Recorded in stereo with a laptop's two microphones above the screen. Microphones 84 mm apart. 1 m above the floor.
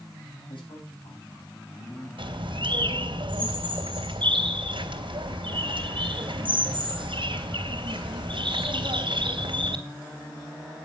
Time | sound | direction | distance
0.5 | a man speaking | 80° left | 8.5 m
2.2 | a bird | 75° right (ahead or behind) | 2.5 m